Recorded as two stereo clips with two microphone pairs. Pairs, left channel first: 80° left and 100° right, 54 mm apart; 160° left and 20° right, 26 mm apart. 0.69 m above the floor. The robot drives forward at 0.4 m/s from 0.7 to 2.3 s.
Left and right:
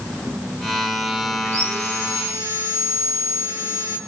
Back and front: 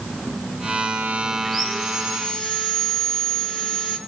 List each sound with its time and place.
1.4 s sawing: 95° right, 8 m; by 4.0 s 100° right, 8.5 m